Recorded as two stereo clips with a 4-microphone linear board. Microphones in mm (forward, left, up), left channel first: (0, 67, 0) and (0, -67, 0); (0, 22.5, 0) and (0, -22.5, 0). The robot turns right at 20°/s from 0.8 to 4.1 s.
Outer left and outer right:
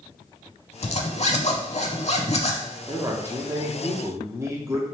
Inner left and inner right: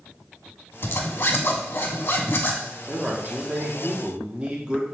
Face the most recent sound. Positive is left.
turn(degrees=-20)  # may be behind; listen again after turning